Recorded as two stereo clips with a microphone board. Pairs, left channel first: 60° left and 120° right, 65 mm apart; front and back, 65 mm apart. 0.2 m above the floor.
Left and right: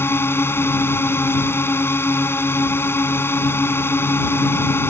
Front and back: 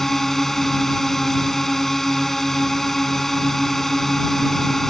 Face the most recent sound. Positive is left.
turn(degrees=80)